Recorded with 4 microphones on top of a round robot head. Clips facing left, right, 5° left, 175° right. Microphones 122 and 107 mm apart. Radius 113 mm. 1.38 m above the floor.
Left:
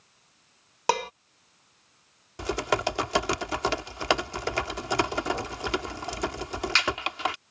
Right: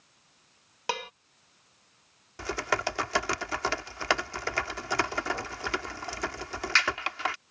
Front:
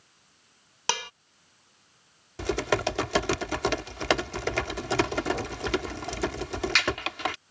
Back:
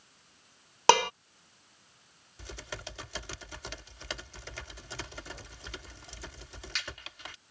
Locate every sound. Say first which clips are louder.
0.9 s dishes clattering: left 8 dB, back 11 dB; 150° left
2.4 s typing on a keyboard: left 4 dB, front 18 dB; 20° left